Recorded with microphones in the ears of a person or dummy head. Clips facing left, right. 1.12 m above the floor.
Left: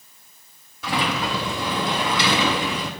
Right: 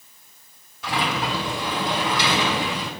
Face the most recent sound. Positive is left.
turn(degrees=70)  # may be behind; listen again after turning